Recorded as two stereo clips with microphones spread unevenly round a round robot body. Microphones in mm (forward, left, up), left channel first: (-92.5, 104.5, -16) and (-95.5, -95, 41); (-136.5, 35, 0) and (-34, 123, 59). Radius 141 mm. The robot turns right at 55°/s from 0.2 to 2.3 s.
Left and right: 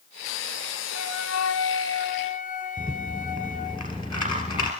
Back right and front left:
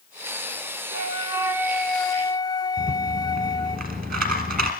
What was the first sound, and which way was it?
A flute, 70° left.